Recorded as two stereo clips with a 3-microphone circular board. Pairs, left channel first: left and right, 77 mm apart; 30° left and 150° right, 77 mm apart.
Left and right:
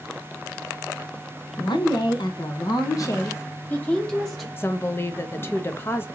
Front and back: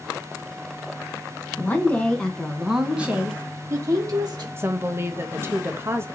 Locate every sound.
1.6 s a woman speaking: 95° left, 1.2 m; by 4.5 s 175° left, 1.2 m
4.6 s a woman speaking: 150° left, 0.7 m